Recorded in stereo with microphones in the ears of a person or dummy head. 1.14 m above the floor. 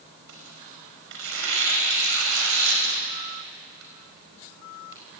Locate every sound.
0.3 s tearing paper: 75° right (ahead or behind), 5 m